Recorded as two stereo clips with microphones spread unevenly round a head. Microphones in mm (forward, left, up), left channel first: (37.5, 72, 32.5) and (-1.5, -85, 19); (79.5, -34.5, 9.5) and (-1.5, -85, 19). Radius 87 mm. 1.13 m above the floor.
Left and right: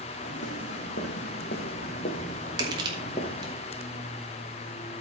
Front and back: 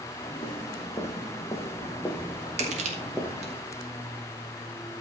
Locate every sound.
0.2 s footsteps: 100° left, 4 m; by 3.6 s 140° left, 2.5 m
2.6 s crushing: 170° right, 2.5 m